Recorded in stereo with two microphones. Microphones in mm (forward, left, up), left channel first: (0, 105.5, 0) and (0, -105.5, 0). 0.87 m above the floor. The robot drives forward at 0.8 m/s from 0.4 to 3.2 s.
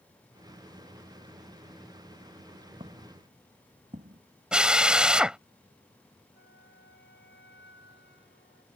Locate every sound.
2.8 s footsteps: 25° right (ahead or behind); by 4.2 s 40° right (ahead or behind)
4.5 s a drill: 5° right (ahead or behind)
6.3 s a flute: 60° left (ahead or behind)